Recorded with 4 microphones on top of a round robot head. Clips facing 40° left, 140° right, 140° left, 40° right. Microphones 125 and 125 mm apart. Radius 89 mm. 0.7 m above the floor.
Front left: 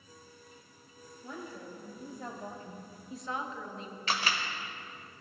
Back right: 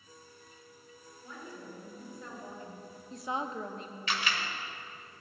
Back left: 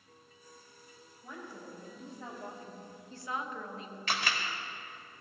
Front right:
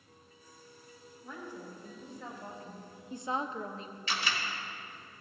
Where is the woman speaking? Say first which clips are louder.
Front left 3 dB, front right 2 dB; 70° left, 3 m; by 4.0 s 100° right, 1.4 m.